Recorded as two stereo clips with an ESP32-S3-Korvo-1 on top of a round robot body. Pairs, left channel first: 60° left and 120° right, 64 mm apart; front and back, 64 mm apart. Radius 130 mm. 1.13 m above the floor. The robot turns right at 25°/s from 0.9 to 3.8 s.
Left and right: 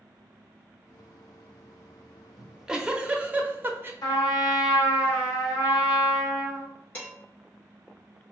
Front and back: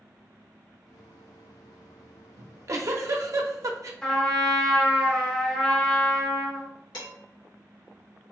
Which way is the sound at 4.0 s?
80° left.